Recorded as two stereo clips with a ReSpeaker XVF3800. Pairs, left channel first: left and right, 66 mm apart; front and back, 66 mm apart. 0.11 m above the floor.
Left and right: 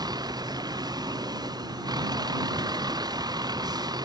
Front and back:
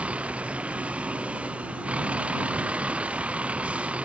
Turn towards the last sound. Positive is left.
turn(degrees=-105)